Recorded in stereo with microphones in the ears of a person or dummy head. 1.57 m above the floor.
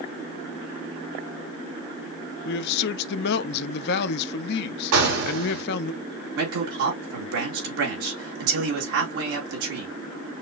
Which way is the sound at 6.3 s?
75° right (ahead or behind).